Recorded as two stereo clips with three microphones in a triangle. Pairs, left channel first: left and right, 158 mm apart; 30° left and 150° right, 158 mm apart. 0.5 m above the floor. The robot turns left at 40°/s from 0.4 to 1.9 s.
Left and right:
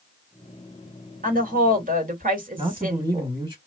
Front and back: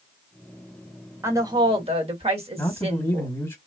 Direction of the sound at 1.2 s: 80° right.